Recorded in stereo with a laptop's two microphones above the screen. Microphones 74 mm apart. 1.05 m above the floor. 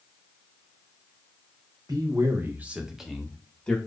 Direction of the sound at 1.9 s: 50° right (ahead or behind).